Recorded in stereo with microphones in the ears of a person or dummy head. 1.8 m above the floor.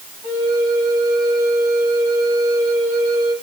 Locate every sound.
0.2 s a flute: 55° right (ahead or behind), 8 m